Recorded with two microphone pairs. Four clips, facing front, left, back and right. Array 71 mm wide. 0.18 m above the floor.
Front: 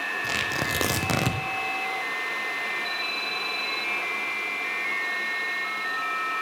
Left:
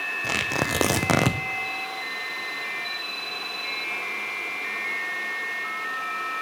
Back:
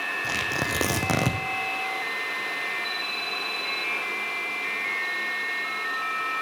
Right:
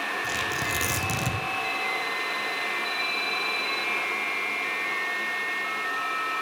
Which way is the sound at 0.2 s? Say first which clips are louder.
Left 2 dB, even; 100° left.